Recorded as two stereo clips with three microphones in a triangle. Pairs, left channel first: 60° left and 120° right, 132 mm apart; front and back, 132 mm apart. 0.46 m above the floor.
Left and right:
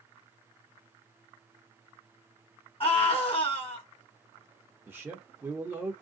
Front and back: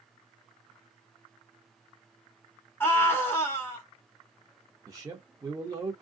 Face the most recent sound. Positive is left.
turn(degrees=-170)